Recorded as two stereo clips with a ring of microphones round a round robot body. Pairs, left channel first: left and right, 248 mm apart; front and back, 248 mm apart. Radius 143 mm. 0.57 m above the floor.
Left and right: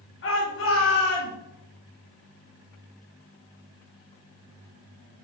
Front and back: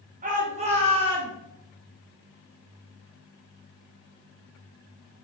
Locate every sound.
0.2 s a shout: 125° left, 2.5 m; by 1.3 s 110° left, 3 m